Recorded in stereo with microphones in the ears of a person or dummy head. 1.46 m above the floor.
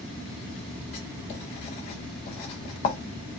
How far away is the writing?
About 0.9 m.